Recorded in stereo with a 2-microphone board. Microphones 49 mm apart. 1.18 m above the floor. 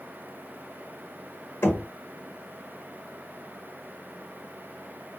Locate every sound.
1.6 s knocking: 50° left (ahead or behind), 1.3 m